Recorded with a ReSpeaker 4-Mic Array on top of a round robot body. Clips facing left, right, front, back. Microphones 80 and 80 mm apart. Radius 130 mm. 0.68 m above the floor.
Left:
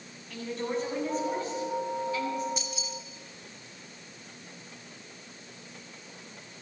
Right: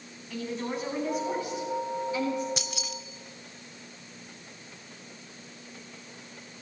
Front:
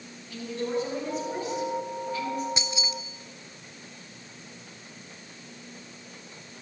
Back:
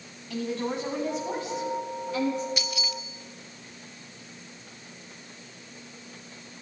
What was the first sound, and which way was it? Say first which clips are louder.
A woman speaking: left 1 dB, even; straight behind.